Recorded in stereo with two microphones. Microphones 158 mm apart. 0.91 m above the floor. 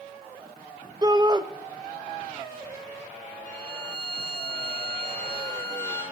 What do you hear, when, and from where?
1.0 s a shout: 25° right (ahead or behind), 0.7 m
3.5 s a violin: 10° left (ahead or behind), 2.5 m